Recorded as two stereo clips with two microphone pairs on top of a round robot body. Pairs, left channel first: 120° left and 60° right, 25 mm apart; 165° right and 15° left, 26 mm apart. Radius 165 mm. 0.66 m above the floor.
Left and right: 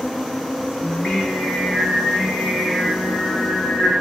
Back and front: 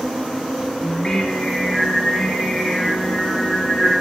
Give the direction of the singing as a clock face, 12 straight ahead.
8 o'clock.